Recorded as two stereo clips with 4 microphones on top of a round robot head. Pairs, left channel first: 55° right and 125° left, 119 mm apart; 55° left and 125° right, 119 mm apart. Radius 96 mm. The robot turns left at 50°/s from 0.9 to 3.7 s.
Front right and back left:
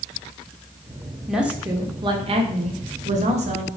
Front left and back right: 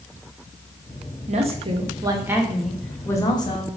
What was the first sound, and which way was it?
A woman speaking, 145° right.